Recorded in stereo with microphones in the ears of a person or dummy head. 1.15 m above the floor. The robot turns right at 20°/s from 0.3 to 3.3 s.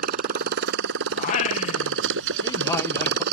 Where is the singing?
125° left; by 3.2 s 165° left.